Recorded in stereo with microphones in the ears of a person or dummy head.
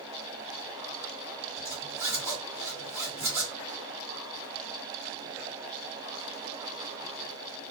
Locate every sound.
1.6 s a zipper: 15° right (ahead or behind), 1.5 m